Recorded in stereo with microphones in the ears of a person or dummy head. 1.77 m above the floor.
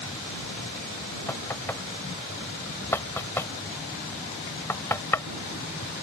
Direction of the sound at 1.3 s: 15° left (ahead or behind).